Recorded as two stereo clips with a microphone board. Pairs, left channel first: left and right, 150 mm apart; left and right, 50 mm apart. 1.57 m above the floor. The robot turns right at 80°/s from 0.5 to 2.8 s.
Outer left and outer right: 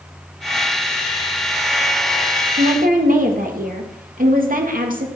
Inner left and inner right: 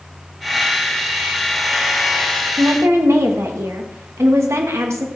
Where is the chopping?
I don't hear chopping.